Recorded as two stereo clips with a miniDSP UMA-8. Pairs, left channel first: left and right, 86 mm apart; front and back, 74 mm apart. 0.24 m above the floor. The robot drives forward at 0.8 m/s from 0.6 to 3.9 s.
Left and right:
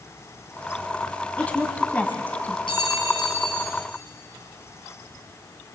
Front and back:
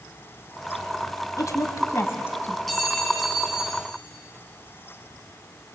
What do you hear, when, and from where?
1.4 s a woman speaking: 20° left, 2 m; by 2.6 s 40° left, 1.6 m
2.7 s a clink: 85° left, 4 m; by 3.8 s 100° left, 4 m